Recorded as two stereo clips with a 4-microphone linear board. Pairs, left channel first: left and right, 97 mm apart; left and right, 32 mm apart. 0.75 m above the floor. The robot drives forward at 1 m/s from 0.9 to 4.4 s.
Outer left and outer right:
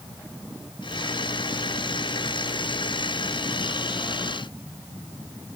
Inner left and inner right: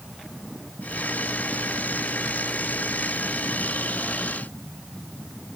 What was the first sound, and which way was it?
Only background noise.